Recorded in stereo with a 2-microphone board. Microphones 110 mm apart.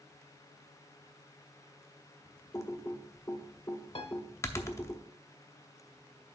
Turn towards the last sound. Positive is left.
turn(degrees=60)  # may be behind; listen again after turning